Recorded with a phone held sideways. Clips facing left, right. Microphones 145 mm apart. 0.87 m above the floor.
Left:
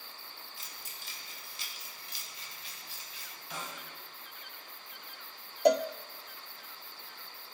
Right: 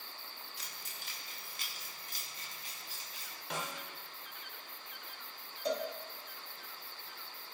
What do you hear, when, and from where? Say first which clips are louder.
0.6 s keys jangling: even; 65° right (ahead or behind), 1.9 m; by 3.3 s 40° right (ahead or behind), 5 m
3.5 s a snare drum: right 2 dB; 65° right (ahead or behind), 2.5 m
5.7 s a cowbell: left 11 dB; 65° left (ahead or behind), 0.5 m